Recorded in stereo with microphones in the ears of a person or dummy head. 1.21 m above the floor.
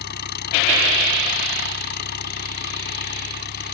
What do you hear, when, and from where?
0.0 s an engine running: 50° left (ahead or behind)